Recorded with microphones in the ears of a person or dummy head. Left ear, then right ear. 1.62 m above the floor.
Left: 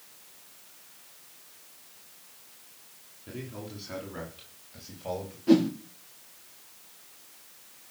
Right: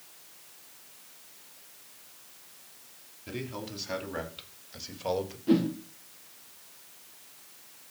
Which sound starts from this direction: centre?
A whoosh, at 5.5 s.